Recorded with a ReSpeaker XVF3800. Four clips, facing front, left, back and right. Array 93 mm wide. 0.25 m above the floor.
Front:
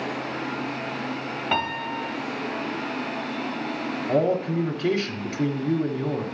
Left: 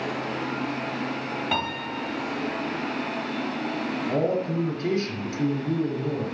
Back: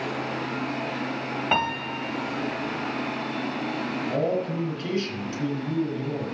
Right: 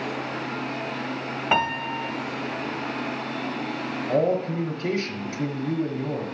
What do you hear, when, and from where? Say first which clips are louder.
1.5 s a piano: right 8 dB, even; 100° right, 1.0 m
4.1 s a man speaking: right 3 dB, front 5 dB; straight ahead, 1.7 m